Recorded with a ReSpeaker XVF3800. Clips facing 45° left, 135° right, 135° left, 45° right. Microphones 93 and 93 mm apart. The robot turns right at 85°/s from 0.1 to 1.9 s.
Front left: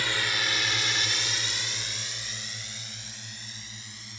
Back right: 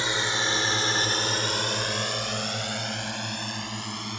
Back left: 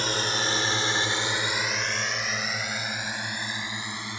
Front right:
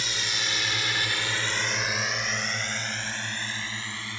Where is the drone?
165° left; by 4.2 s 155° right.